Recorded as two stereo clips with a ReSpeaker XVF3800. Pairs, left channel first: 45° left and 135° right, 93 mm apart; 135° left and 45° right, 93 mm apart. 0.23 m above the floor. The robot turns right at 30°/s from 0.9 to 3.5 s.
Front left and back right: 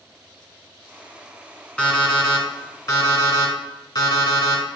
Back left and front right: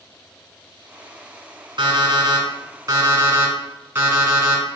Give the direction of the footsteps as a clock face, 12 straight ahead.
I don't hear footsteps.